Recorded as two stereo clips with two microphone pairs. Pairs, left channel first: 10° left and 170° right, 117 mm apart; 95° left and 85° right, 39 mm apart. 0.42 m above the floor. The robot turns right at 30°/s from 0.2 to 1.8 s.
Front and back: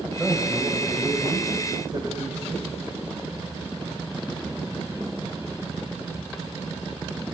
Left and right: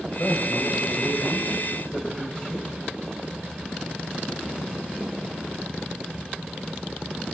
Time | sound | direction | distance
0.2 | a man speaking | 100° left | 2.5 m